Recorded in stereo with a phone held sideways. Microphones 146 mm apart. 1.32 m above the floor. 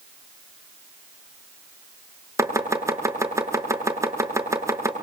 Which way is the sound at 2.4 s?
20° right (ahead or behind).